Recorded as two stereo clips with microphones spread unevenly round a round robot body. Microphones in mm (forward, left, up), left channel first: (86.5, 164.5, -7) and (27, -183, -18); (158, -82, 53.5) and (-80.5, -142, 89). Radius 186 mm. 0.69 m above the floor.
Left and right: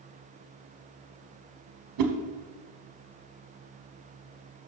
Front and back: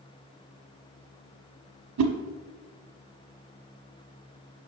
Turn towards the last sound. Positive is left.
turn(degrees=-145)